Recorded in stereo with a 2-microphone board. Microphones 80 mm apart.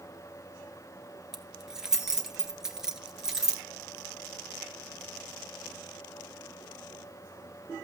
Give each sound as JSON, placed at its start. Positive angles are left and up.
{"t": 1.3, "sound": "keys jangling", "side_deg": -5, "distance_m": 1.5}